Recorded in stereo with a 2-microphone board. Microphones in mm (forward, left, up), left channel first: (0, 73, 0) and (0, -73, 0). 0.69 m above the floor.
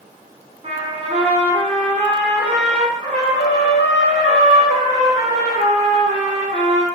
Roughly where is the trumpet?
Right.